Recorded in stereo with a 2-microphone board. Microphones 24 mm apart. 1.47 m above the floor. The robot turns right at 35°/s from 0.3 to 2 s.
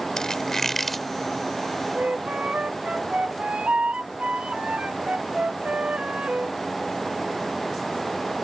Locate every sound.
0.2 s a squeak: 30° left (ahead or behind); by 1.1 s 5° left (ahead or behind)
1.9 s a flute: 80° right